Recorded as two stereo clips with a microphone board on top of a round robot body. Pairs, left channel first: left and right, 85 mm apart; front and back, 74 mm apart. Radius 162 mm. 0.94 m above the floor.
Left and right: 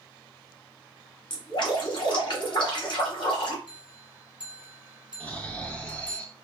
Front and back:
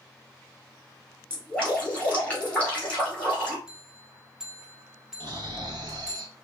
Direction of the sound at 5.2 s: 165° left.